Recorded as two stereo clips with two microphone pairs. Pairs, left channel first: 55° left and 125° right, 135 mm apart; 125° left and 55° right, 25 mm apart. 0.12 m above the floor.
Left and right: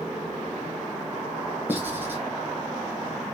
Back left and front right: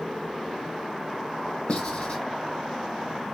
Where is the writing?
160° left, 1.3 m.